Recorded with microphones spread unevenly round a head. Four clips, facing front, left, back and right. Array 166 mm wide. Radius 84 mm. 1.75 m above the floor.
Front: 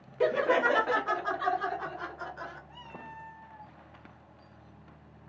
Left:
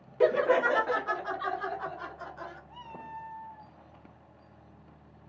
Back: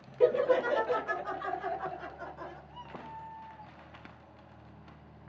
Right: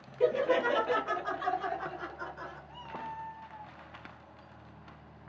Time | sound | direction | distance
0.2 | laughter | 60° left | 0.6 m
2.7 | a cat meowing | 5° left | 3.5 m